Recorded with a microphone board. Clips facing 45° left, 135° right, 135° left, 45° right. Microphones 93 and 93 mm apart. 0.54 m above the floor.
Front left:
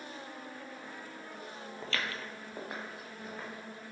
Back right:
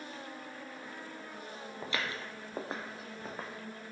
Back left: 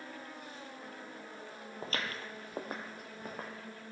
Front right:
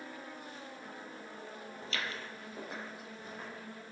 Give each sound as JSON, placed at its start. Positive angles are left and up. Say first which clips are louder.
{"t": 1.8, "sound": "footsteps", "louder": "even, back left 2 dB", "azimuth_deg": 155, "distance_m": 0.7}